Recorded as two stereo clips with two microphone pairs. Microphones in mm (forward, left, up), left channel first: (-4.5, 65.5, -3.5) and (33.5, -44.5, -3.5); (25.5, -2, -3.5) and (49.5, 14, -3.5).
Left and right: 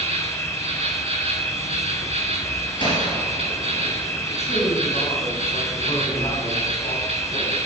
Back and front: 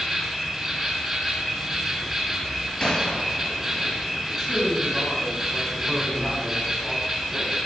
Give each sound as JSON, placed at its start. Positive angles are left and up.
{"t": 0.0, "sound": "an insect", "azimuth_deg": -40, "distance_m": 2.5}
{"t": 2.8, "sound": "a gunshot", "azimuth_deg": 155, "distance_m": 2.5}
{"t": 4.3, "sound": "a man speaking", "azimuth_deg": 130, "distance_m": 3.5}